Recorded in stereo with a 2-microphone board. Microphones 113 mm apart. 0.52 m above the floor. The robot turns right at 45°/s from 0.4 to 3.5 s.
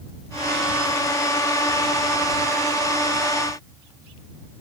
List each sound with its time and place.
Only background noise.